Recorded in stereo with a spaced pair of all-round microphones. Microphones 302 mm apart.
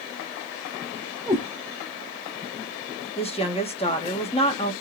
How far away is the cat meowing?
About 2.5 m.